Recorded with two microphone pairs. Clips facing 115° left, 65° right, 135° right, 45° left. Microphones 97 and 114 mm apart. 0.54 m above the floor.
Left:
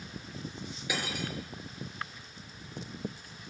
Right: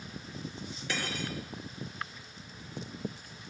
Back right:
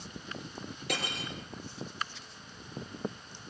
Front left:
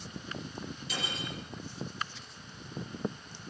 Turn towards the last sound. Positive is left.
turn(degrees=-160)